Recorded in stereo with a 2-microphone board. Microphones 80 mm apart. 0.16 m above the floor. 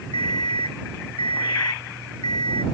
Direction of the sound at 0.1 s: 75° left (ahead or behind).